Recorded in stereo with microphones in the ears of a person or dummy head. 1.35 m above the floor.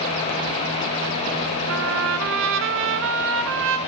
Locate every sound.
1.7 s a trumpet: 75° right (ahead or behind), 5 m